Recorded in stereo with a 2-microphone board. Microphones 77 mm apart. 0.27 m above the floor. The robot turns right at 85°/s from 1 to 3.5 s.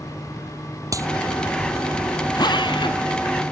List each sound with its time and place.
0.9 s a clap: 45° right (ahead or behind); by 1.1 s 40° right (ahead or behind)
2.4 s a drill: 60° left; by 3.0 s 120° left